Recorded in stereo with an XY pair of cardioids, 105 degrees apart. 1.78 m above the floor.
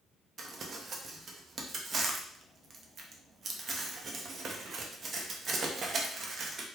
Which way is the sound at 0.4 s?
50° right.